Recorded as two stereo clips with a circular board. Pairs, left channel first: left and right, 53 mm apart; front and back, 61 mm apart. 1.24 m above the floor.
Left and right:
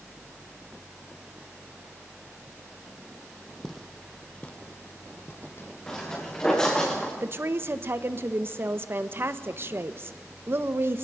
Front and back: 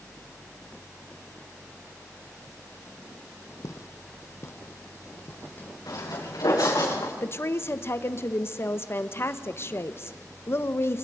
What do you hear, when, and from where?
3.6 s footsteps: 5° left, 2.0 m; by 6.9 s 75° left, 3 m
5.9 s footsteps: 10° left, 6 m; by 7.1 s 15° left, 6.5 m
7.2 s a woman speaking: 45° right, 1.1 m